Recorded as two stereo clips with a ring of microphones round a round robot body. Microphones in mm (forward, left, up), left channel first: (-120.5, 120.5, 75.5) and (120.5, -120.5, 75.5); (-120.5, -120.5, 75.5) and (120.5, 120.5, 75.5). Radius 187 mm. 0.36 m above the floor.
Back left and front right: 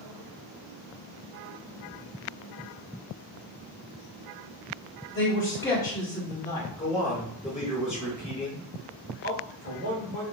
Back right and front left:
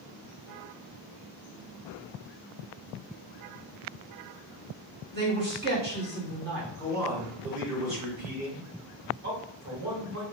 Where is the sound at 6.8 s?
40° left, 1.7 m.